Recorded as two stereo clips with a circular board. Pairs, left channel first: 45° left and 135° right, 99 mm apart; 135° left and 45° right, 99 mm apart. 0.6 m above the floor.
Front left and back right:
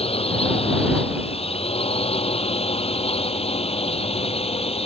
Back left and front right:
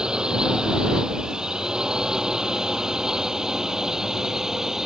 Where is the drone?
35° left; by 4.9 s 40° left.